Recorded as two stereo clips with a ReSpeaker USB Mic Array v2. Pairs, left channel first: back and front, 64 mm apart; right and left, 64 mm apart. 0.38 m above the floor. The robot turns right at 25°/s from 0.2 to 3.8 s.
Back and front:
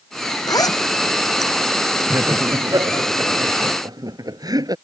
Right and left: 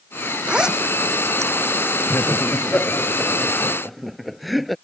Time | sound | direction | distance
0.5 | a zipper | 165° left | ?
2.1 | laughter | 45° right | ?